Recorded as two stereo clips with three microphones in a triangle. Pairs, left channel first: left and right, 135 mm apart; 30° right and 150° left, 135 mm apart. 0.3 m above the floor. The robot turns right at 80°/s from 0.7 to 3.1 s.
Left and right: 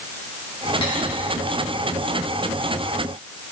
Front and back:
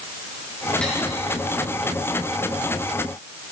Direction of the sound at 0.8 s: 50° left.